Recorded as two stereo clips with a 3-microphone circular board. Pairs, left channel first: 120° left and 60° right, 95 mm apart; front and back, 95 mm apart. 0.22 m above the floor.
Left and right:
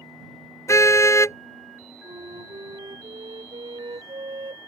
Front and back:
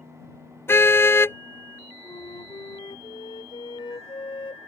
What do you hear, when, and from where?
0.7 s a car horn: 65° left
2.0 s a flute: 35° right